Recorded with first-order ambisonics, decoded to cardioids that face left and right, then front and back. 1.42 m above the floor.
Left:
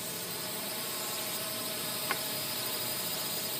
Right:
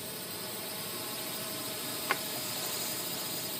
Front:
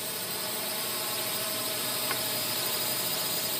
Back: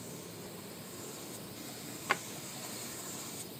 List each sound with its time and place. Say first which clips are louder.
0.0 s a drone: left 2 dB, front 12 dB; 10° left
2.1 s a drawer: right 3 dB, back 4 dB; 150° right